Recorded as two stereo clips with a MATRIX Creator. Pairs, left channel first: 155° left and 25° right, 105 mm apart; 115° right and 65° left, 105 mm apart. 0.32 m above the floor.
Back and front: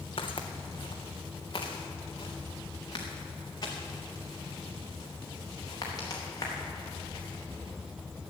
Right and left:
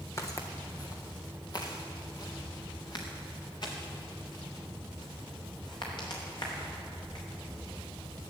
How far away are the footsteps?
About 1.7 m.